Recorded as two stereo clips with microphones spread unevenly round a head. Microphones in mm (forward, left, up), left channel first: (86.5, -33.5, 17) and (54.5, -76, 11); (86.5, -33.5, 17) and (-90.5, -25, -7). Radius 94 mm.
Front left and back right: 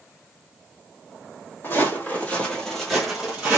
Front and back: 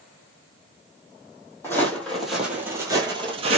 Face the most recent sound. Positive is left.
turn(degrees=-165)